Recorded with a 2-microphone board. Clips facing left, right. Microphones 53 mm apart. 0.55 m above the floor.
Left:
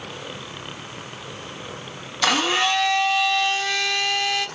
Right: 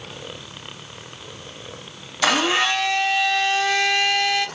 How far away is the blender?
About 0.7 m.